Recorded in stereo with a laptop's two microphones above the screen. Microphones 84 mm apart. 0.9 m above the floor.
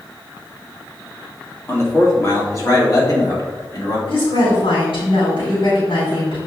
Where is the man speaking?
30° left (ahead or behind), 2 m; by 4.0 s 50° left (ahead or behind), 3 m.